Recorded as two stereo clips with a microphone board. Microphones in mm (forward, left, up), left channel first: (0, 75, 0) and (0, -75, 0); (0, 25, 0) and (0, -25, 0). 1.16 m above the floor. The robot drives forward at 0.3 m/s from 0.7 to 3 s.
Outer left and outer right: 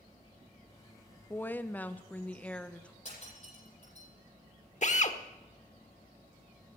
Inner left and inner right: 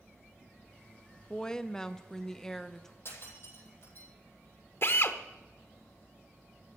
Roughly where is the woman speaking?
Centre.